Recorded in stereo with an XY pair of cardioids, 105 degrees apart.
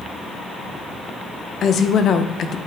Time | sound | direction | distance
1.6 | a woman speaking | 60° left | 0.8 m